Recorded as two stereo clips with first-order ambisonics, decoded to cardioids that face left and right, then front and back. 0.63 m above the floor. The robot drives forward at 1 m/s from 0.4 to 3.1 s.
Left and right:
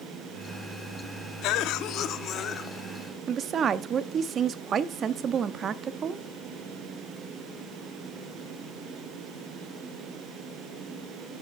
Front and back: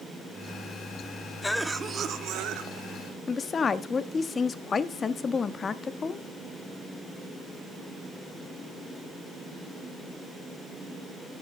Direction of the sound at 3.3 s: 55° right.